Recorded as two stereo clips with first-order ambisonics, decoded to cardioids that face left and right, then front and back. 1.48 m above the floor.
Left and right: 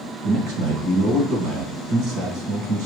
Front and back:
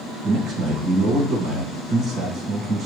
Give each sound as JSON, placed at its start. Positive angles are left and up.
{"t": 0.2, "sound": "a man speaking", "azimuth_deg": -125, "distance_m": 1.8}